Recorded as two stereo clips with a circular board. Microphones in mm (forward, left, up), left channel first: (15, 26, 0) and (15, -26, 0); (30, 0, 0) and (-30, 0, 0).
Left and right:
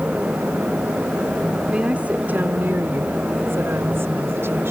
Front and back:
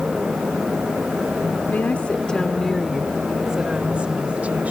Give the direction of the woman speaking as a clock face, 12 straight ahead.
1 o'clock.